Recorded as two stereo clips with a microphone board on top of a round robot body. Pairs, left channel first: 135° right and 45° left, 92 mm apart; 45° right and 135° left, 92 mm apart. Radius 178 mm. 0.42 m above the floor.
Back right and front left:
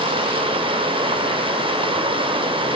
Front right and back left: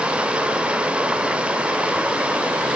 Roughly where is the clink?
I don't hear a clink.